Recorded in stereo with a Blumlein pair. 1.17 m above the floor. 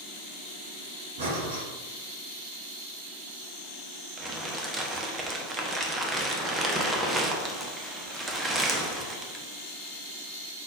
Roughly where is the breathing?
Ahead right.